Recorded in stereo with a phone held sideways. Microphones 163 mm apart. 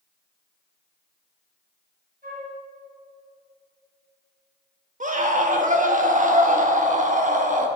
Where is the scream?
50° right (ahead or behind), 1.3 m.